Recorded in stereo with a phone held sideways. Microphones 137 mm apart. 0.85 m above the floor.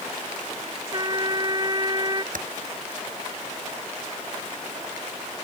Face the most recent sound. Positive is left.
turn(degrees=-85)